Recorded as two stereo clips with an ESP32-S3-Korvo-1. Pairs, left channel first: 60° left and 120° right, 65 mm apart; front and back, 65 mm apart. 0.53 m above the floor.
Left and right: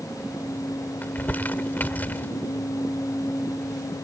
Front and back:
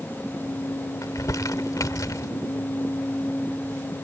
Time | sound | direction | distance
1.0 | crumpling | 5° left | ?